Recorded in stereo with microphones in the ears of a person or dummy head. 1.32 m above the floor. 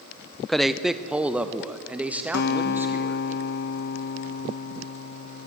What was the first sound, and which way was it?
A man speaking, centre (ahead or behind).